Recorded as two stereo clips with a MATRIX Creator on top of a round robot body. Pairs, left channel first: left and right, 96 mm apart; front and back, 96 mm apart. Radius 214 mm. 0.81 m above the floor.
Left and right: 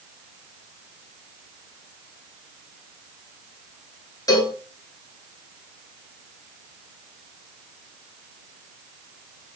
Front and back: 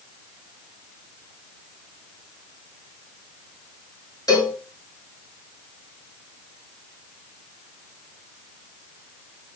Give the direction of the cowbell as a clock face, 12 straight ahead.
11 o'clock.